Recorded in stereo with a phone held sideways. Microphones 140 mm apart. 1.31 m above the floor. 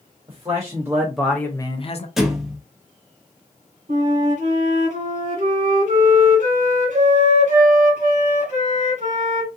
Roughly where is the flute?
Right.